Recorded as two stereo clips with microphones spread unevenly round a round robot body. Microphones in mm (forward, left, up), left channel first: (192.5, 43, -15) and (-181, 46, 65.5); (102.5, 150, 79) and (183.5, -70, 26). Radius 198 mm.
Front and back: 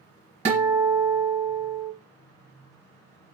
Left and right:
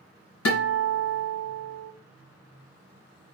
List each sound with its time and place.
0.5 s a guitar: 105° left, 2.5 m